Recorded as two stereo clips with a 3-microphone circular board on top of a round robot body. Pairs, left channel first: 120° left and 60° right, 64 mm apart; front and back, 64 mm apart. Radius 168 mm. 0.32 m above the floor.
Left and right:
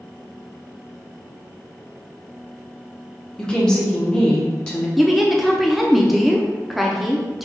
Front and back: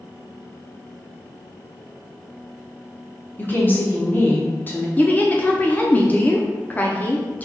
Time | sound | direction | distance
3.4 | a woman speaking | 45° left | 1.3 m
5.0 | a woman speaking | 25° left | 0.9 m